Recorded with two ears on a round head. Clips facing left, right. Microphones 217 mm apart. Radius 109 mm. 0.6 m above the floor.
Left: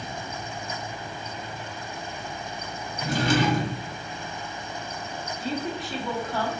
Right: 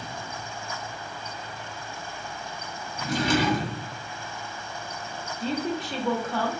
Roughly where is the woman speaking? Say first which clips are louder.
Right 3 dB; centre.